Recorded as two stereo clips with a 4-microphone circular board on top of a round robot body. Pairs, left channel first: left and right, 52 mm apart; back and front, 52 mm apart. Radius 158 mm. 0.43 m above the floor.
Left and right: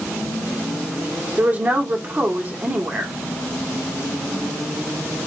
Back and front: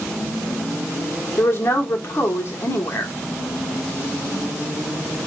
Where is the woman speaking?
150° right, 1.5 m.